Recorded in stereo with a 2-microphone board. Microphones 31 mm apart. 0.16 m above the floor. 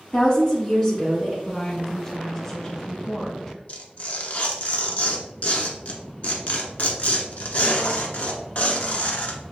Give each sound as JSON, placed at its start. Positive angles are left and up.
{"t": 0.1, "sound": "a woman speaking", "side_deg": 20, "distance_m": 1.4}
{"t": 1.4, "sound": "a woman speaking", "side_deg": 10, "distance_m": 1.4}
{"t": 3.7, "sound": "tearing paper", "side_deg": 50, "distance_m": 0.8}